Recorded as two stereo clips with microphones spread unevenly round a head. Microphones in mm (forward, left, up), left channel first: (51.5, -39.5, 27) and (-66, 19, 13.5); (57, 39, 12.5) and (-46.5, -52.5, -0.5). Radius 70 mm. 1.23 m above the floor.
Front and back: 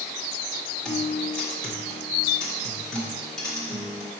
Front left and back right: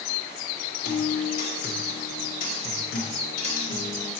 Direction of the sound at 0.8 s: 60° left.